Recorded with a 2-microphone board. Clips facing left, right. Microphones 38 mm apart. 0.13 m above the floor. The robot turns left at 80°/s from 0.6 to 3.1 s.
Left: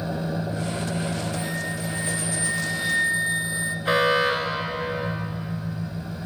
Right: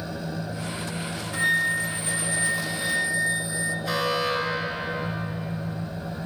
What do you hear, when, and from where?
0.0 s an engine running: 145° left, 3.5 m; by 6.3 s 55° right, 3.5 m
1.3 s a flute: 70° right, 1.1 m; by 3.8 s 150° left, 1.1 m
3.9 s an alarm: 35° left (ahead or behind), 2.5 m